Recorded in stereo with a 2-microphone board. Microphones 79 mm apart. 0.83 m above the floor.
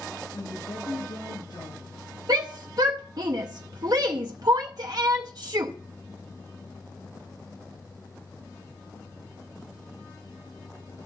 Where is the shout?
55° right (ahead or behind), 0.7 m.